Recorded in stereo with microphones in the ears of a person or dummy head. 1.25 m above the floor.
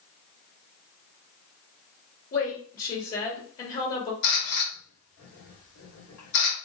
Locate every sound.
2.3 s a woman speaking: 40° left (ahead or behind), 1.2 m
4.2 s a camera shutter: 85° left, 1.6 m